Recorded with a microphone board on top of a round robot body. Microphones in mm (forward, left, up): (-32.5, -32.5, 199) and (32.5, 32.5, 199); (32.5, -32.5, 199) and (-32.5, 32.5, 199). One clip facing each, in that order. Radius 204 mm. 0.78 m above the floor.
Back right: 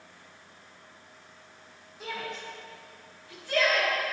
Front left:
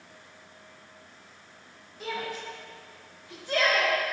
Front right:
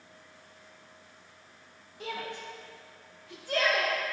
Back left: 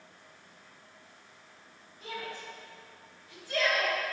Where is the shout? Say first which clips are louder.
Front left 3 dB, front right 3 dB; 45° right, 1.3 m; by 3.9 s 20° right, 2 m.